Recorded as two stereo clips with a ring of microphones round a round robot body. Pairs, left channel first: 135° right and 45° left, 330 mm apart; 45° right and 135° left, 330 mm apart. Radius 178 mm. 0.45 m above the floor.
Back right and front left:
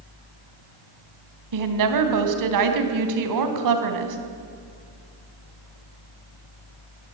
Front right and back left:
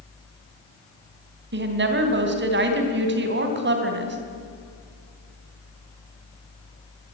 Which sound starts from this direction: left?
A woman speaking, at 1.5 s.